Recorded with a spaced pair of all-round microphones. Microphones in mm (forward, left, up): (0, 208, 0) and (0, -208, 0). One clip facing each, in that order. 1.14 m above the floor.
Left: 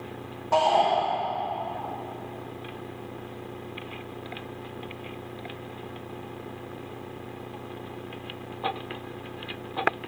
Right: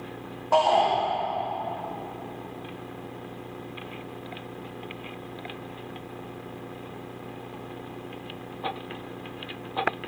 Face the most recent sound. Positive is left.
turn(degrees=35)  # may be behind; listen again after turning